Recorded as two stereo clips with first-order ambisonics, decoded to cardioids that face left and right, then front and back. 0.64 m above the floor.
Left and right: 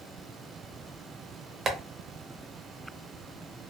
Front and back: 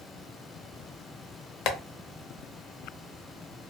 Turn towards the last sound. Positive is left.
turn(degrees=-25)